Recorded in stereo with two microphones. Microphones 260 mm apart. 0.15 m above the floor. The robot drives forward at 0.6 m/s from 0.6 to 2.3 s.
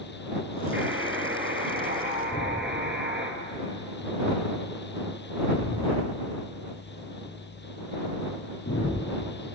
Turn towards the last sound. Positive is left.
turn(degrees=70)  # may be behind; listen again after turning